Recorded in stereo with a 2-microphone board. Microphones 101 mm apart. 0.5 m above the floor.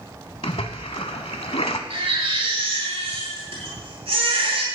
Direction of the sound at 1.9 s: 85° right.